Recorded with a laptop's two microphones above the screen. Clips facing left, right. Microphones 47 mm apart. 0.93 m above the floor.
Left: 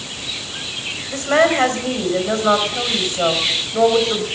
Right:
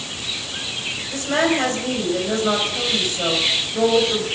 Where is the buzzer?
I don't hear a buzzer.